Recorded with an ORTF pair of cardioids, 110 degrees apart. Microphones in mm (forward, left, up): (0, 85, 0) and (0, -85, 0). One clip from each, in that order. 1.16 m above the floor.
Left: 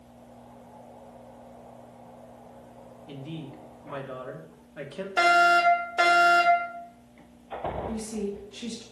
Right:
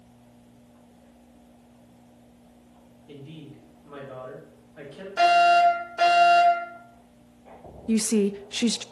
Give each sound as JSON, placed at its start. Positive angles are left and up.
{"t": 3.1, "sound": "a woman speaking", "azimuth_deg": 40, "distance_m": 3.0}
{"t": 5.2, "sound": "a fire alarm", "azimuth_deg": 40, "distance_m": 4.5}
{"t": 7.9, "sound": "a woman speaking", "azimuth_deg": -65, "distance_m": 0.6}